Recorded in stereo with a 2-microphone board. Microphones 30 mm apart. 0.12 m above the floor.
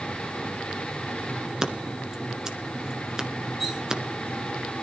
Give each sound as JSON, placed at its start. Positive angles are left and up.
{"t": 1.6, "sound": "scissors", "side_deg": -20, "distance_m": 1.4}
{"t": 3.6, "sound": "cutlery clinking", "side_deg": -15, "distance_m": 4.5}